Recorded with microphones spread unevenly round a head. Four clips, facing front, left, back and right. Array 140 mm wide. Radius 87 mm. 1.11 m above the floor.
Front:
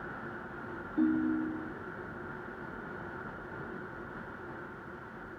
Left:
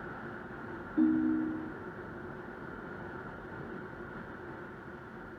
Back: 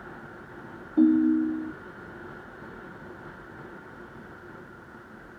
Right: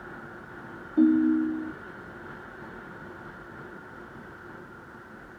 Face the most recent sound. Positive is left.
turn(degrees=-175)